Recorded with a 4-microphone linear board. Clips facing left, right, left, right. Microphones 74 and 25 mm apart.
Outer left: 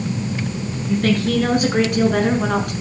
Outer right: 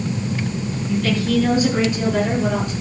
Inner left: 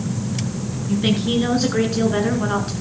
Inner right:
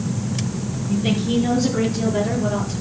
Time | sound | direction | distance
0.9 | a woman speaking | 50° left (ahead or behind) | 6 m